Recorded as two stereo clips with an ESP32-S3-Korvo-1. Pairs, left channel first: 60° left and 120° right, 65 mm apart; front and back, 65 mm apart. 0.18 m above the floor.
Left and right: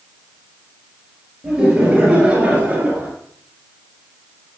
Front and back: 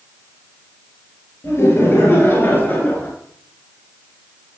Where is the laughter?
45° right, 3 m; by 3.1 s 55° right, 2.5 m.